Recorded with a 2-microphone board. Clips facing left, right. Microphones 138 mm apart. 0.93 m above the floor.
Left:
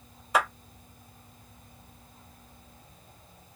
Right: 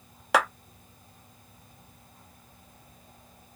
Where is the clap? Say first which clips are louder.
Right 2 dB; 80° right, 0.7 m.